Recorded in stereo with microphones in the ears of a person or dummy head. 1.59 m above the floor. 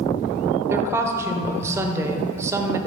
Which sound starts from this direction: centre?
A woman speaking, at 0.7 s.